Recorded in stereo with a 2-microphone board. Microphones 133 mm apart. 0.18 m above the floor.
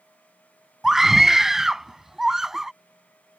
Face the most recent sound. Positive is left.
turn(degrees=-5)  # may be behind; listen again after turning